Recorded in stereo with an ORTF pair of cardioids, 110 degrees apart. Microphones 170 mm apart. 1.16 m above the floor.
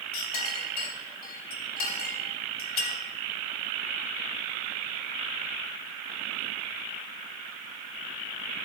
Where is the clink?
65° left, 3.5 m.